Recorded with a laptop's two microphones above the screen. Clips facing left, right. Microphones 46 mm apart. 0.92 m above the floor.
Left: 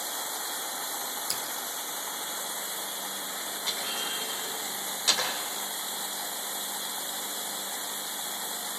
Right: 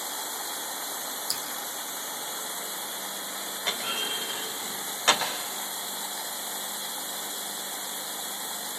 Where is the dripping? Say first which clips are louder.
Even; 50° left (ahead or behind), 1.7 m.